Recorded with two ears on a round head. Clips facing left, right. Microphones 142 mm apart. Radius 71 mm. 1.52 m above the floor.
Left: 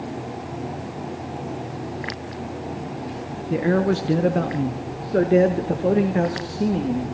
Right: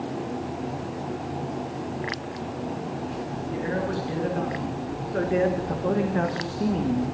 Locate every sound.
3.5 s a man speaking: 75° left (ahead or behind), 1.4 m; by 7.1 s 10° left (ahead or behind), 1.9 m